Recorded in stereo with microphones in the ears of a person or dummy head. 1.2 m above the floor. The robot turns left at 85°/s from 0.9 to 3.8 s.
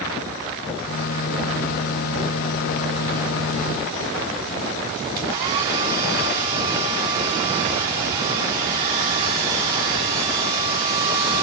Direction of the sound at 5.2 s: 25° right (ahead or behind).